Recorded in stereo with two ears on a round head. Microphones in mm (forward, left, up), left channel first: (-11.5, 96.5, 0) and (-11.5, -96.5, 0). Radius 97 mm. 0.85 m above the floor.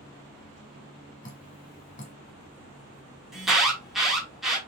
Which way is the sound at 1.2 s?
40° left (ahead or behind).